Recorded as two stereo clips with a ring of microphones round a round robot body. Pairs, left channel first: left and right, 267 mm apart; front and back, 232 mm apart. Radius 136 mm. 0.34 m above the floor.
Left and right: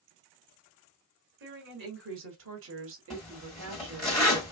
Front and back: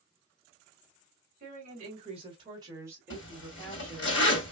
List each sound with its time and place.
1.4 s a woman speaking: 130° right, 2.5 m; by 4.1 s 75° right, 1.8 m
3.1 s a zipper: straight ahead, 2.5 m